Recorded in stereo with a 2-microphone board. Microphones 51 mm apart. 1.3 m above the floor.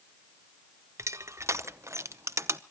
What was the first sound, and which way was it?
Crushing, 70° right (ahead or behind).